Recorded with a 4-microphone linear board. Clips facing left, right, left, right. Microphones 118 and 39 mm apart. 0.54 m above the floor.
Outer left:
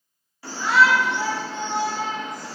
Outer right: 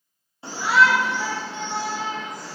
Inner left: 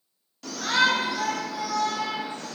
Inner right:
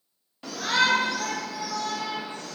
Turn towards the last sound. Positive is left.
turn(degrees=65)  # may be behind; listen again after turning